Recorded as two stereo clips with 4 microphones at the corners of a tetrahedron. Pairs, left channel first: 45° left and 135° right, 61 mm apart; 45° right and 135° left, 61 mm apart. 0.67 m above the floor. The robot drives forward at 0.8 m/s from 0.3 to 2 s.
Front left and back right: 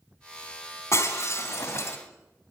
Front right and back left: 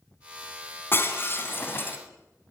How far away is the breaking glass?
About 3 m.